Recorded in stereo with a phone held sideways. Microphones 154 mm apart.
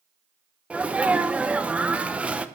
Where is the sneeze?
10° right (ahead or behind), 0.7 m.